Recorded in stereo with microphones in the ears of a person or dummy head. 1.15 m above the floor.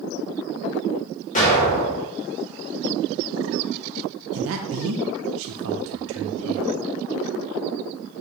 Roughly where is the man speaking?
Right.